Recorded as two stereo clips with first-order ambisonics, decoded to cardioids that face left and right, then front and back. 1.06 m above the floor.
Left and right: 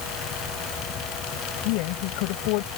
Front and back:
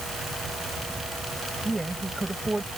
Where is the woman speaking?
95° left.